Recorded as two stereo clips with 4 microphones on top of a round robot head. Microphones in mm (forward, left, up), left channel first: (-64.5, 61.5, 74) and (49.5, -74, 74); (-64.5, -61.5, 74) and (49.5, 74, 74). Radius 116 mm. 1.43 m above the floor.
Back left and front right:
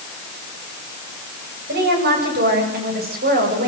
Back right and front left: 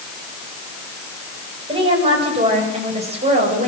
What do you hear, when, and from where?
1.7 s a woman speaking: 15° right, 9 m; by 3.7 s 5° right, 8.5 m